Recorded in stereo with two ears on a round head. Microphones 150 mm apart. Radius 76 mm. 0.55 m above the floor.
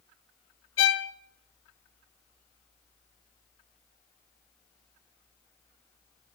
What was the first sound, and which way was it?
A violin, 85° left.